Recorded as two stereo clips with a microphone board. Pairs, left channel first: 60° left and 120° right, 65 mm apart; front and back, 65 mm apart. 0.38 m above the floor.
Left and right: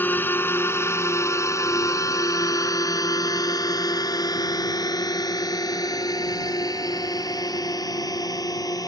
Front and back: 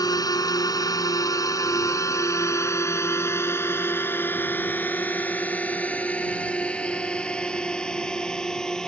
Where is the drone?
Straight ahead; by 8.9 s 80° left.